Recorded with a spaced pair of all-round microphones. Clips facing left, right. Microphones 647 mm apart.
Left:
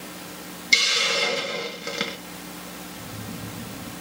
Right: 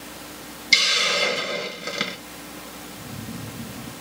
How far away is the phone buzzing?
About 1.3 m.